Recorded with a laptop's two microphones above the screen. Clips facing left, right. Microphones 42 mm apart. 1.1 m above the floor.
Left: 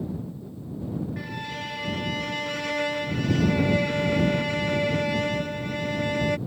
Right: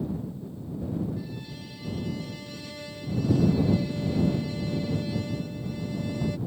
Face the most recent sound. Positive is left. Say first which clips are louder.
# left 5 dB
turn(degrees=80)